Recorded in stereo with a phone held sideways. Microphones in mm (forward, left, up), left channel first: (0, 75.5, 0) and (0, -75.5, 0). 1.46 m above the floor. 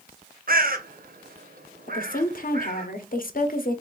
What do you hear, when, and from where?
0.5 s a bird: 65° right (ahead or behind), 0.6 m
1.9 s a woman speaking: 60° left (ahead or behind), 0.7 m